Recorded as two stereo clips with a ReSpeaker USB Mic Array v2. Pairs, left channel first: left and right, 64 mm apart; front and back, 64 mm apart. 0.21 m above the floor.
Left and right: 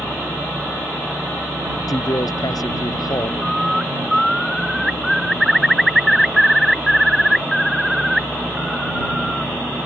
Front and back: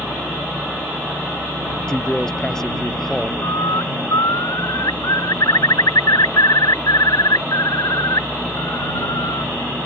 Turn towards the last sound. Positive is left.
turn(degrees=0)